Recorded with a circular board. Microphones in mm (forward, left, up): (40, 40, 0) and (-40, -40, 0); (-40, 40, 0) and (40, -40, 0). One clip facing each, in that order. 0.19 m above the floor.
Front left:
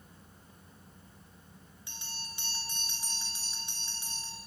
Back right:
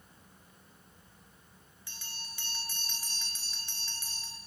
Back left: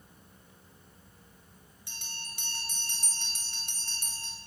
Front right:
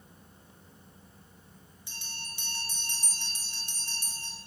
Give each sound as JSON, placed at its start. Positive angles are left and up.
{"t": 1.9, "sound": "a bell", "azimuth_deg": 110, "distance_m": 1.6}